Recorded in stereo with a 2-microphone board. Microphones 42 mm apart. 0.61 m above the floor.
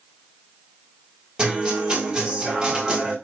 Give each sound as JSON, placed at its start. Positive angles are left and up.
{"t": 1.4, "sound": "a guitar", "side_deg": -15, "distance_m": 4.0}